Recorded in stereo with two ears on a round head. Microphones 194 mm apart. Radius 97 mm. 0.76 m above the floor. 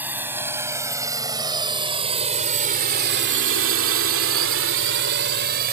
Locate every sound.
0.0 s a drone: 10° right (ahead or behind); by 5.7 s 45° right (ahead or behind)